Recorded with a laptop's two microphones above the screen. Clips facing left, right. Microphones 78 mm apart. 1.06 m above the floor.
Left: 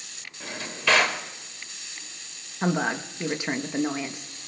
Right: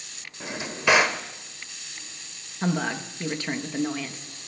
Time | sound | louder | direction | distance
0.4 | a drawer | right 3 dB | 15° right (ahead or behind) | 0.8 m
2.6 | a woman speaking | left 1 dB | 15° left (ahead or behind) | 0.9 m